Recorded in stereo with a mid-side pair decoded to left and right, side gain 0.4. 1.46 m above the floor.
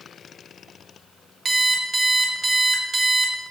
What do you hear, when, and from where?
1.4 s an alarm clock: 40° right, 1.8 m